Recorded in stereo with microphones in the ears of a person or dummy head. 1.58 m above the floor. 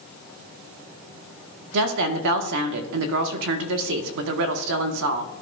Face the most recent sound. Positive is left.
turn(degrees=-65)  # may be behind; listen again after turning